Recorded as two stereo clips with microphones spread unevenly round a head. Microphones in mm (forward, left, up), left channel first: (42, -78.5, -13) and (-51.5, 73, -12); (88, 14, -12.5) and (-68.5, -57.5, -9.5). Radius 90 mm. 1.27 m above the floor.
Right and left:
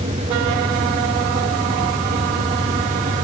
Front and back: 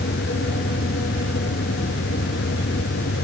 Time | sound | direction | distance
0.0 | a fan | 65° left | ?